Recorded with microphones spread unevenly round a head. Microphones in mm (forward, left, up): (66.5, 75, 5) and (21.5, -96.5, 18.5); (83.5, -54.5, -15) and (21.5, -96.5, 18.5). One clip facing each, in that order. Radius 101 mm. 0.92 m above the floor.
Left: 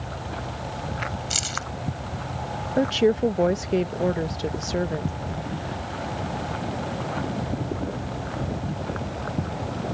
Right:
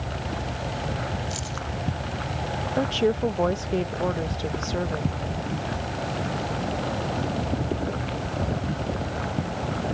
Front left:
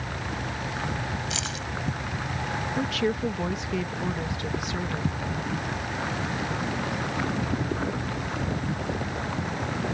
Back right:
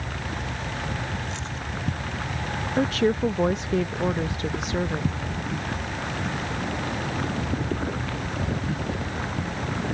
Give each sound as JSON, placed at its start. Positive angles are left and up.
{"t": 1.3, "sound": "keys jangling", "azimuth_deg": 70}
{"t": 2.8, "sound": "a woman speaking", "azimuth_deg": 135}